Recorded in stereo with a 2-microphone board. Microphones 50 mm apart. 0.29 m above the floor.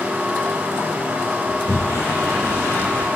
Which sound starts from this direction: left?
A sliding door, at 1.5 s.